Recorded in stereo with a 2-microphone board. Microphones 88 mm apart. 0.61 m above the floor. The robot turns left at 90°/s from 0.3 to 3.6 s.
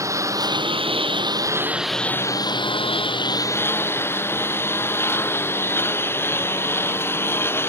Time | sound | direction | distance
0.0 | a lawn mower | 35° right | ?